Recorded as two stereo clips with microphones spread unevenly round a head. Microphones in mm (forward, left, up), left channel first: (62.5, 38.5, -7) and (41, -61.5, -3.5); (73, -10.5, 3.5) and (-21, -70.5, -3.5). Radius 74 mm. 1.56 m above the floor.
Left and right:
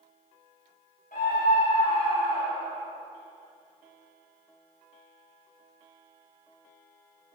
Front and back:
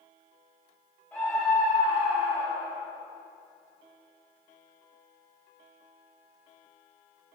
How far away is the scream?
About 1.9 m.